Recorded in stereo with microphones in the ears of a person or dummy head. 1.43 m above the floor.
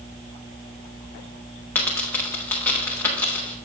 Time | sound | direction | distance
1.8 | a dropped coin | 10° left (ahead or behind) | 0.7 m